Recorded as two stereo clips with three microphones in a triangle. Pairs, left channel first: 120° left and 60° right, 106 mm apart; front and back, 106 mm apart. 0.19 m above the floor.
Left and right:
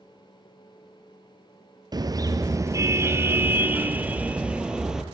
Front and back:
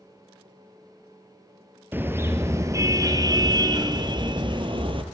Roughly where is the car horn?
Right.